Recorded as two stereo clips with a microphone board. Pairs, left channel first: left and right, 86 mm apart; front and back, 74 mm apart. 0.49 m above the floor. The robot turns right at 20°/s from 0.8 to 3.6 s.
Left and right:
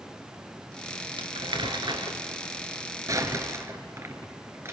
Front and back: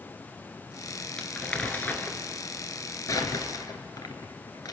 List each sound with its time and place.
1.2 s crumpling: 80° right, 1.6 m; by 4.7 s 30° right, 1.6 m